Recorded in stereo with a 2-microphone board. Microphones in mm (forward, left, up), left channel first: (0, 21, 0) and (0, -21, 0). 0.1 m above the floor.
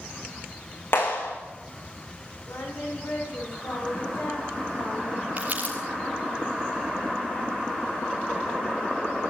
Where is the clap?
65° left (ahead or behind), 7 m.